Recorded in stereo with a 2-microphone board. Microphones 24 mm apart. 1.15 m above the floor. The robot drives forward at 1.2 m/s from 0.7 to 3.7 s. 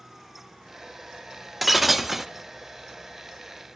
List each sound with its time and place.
1.6 s breaking glass: 5° right (ahead or behind), 1.2 m; by 2.3 s 10° right (ahead or behind), 0.5 m